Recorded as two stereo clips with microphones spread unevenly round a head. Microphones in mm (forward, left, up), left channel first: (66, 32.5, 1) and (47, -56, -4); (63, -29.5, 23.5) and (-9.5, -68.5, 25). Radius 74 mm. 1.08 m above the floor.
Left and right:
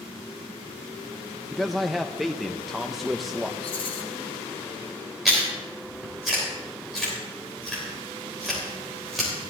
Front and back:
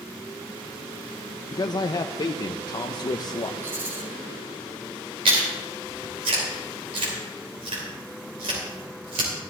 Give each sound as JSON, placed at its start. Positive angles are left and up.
{"t": 1.5, "sound": "a man speaking", "azimuth_deg": -15, "distance_m": 0.5}
{"t": 3.6, "sound": "a rattle", "azimuth_deg": 135, "distance_m": 1.0}
{"t": 5.2, "sound": "chewing", "azimuth_deg": 170, "distance_m": 3.0}